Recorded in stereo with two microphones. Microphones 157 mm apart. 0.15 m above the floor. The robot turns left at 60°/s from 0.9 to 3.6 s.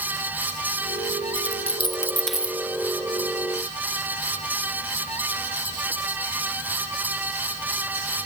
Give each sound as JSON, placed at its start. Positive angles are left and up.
{"t": 1.4, "sound": "a dropped coin", "side_deg": 60}